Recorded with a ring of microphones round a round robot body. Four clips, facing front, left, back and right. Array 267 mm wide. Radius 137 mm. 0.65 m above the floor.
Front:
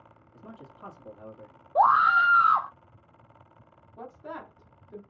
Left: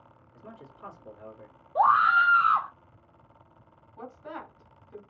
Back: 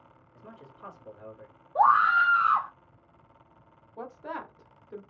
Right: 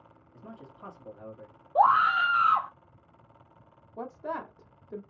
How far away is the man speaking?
About 1.5 m.